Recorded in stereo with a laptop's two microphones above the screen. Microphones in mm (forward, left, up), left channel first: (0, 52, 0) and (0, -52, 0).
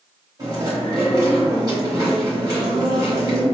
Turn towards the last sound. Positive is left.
turn(degrees=-40)  # may be behind; listen again after turning